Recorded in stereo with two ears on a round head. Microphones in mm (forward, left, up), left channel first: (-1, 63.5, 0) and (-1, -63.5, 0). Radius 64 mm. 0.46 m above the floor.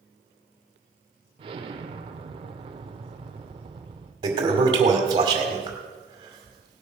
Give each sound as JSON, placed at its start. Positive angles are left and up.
{"t": 1.4, "sound": "an explosion", "side_deg": -35, "distance_m": 1.1}
{"t": 4.2, "sound": "a toilet flushing", "side_deg": -30, "distance_m": 2.0}